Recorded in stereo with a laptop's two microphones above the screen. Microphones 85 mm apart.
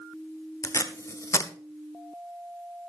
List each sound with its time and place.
0.6 s tape being pulled: 35° left (ahead or behind), 0.8 m